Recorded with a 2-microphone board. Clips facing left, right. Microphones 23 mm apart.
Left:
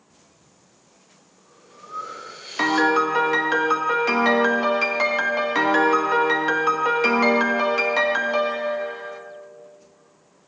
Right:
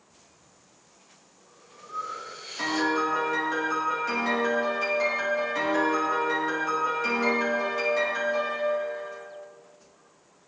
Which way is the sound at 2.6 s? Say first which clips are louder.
Left 7 dB; 50° left (ahead or behind).